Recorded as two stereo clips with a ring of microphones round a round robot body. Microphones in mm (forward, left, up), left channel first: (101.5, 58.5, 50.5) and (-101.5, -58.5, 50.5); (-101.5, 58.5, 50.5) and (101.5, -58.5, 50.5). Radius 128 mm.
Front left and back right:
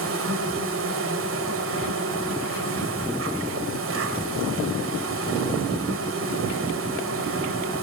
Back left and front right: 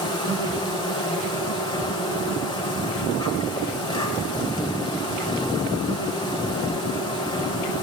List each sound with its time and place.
0.0 s an insect: 145° right, 1.6 m